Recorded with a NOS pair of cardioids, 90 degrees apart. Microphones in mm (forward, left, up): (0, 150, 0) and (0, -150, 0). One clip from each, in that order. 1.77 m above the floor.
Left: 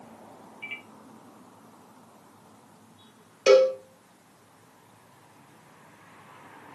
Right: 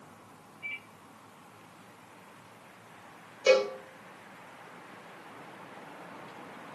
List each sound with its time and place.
0.6 s a microwave: 50° left, 1.5 m
3.5 s a cowbell: 25° left, 1.9 m